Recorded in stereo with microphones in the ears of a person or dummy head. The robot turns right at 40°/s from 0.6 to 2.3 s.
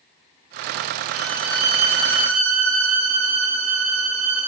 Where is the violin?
170° right, 2.5 m; by 4.5 s 120° right, 2.5 m.